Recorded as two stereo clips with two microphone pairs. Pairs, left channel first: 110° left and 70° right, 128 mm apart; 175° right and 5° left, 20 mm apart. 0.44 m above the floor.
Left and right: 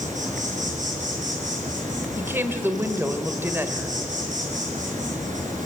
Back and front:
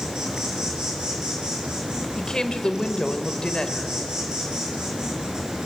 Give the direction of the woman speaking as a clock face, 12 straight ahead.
5 o'clock.